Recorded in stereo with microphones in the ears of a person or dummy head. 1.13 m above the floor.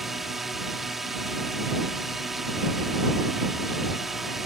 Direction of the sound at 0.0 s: Centre (ahead or behind).